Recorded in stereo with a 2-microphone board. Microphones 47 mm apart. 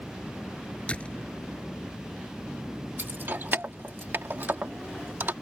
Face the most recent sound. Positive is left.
turn(degrees=-50)  # may be behind; listen again after turning